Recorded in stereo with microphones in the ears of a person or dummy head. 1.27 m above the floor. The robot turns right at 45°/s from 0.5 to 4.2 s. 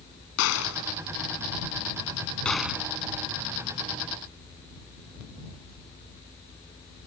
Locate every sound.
0.4 s a gunshot: 85° left; by 2.9 s 10° right (ahead or behind)